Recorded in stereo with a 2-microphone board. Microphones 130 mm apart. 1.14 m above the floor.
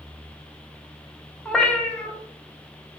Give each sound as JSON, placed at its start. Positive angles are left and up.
{"t": 1.4, "sound": "a cat meowing", "side_deg": 5, "distance_m": 0.6}